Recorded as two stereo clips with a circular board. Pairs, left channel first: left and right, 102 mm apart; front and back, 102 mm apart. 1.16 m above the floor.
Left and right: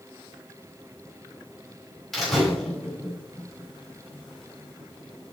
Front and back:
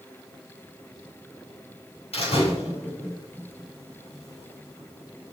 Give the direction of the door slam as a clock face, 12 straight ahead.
12 o'clock.